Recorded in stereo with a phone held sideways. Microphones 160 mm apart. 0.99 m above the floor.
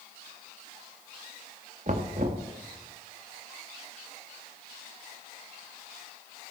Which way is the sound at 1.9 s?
50° right (ahead or behind).